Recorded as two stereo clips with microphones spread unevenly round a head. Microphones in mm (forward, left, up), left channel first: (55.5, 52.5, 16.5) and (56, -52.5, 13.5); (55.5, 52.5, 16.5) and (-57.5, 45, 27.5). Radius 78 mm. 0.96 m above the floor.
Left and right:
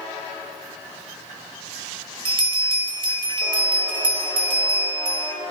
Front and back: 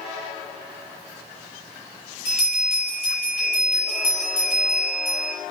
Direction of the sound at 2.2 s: 50° right.